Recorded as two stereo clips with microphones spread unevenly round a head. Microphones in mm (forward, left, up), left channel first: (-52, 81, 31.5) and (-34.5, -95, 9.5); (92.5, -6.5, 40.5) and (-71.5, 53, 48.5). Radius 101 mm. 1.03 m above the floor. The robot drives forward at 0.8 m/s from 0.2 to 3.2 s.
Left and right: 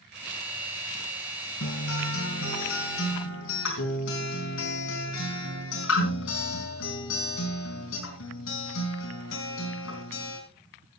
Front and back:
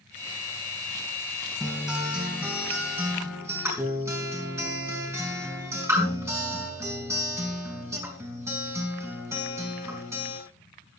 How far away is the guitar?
About 5 m.